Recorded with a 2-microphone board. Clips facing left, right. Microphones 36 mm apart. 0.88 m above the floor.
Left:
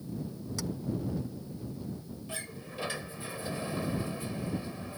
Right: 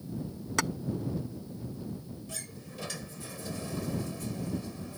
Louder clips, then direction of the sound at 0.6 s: Right 9 dB; 60° right (ahead or behind).